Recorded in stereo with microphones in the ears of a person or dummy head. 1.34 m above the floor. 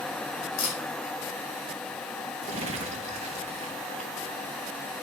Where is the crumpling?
30° right (ahead or behind), 1.8 m.